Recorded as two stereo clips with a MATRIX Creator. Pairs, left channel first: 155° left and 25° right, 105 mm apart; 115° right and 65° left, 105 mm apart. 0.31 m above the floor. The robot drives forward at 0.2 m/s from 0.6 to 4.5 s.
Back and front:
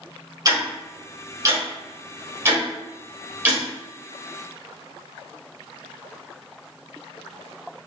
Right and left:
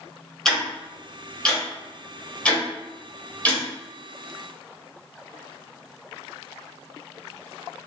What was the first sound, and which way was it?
Ticking, 30° right.